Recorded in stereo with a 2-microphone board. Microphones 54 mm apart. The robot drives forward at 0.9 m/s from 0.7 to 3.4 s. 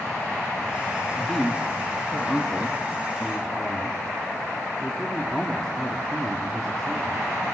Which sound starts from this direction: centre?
A man speaking, at 1.2 s.